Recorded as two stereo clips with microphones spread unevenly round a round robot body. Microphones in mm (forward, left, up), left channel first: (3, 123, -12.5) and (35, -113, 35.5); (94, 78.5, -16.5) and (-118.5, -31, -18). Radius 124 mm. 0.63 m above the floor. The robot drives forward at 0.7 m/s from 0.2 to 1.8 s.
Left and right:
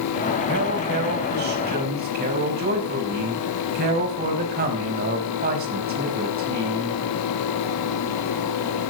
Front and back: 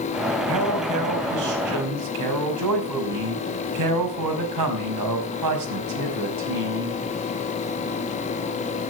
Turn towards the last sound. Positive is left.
turn(degrees=-140)